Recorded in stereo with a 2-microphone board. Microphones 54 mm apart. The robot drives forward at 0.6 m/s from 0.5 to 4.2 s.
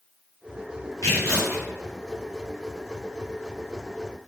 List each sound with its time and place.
1.0 s tearing paper: 75° left (ahead or behind), 3 m; by 1.6 s 80° left, 3 m